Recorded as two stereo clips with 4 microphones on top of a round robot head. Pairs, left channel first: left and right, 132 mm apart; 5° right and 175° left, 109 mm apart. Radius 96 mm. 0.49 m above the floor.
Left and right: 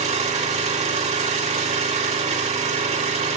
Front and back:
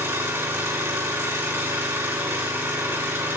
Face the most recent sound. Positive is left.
turn(degrees=-115)